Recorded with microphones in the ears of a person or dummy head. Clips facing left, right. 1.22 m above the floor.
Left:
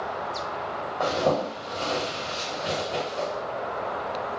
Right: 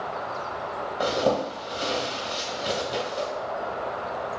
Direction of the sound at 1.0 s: 20° right (ahead or behind).